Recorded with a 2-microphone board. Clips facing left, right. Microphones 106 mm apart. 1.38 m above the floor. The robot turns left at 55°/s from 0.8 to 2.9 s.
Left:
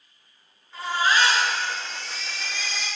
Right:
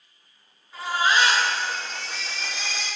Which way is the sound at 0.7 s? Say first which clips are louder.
Even; straight ahead.